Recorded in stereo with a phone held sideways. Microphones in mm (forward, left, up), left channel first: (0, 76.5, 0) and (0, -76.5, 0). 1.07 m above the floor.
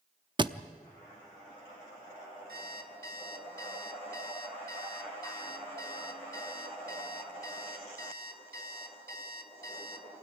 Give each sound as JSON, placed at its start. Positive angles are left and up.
{"t": 0.4, "sound": "a thud", "side_deg": -30, "distance_m": 0.6}
{"t": 2.5, "sound": "an alarm clock", "side_deg": -85, "distance_m": 1.7}